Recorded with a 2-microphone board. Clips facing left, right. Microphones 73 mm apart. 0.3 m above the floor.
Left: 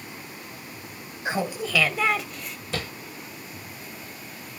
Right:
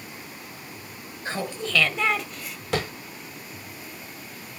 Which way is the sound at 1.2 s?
15° left (ahead or behind).